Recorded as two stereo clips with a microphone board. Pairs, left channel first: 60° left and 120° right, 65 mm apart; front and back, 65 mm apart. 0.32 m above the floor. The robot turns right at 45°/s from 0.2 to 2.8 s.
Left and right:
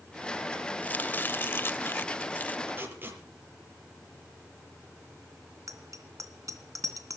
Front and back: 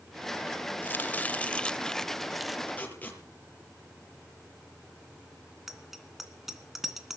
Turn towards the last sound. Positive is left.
turn(degrees=-95)